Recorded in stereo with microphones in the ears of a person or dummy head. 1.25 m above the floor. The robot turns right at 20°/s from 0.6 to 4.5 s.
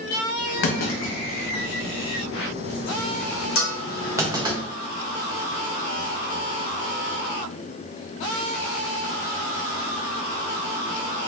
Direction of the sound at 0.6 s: 55° left (ahead or behind).